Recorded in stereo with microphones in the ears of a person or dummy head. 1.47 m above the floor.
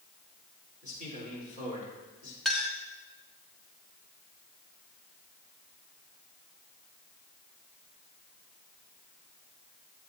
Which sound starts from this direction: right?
A man speaking, at 0.8 s.